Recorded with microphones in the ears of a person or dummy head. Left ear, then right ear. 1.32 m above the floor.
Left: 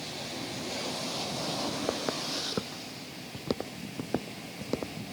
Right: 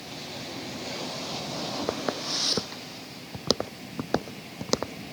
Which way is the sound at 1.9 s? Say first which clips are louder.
Right 2 dB; 15° right (ahead or behind).